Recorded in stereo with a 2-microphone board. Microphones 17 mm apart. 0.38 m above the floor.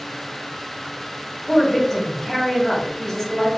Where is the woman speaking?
20° left (ahead or behind), 2 m.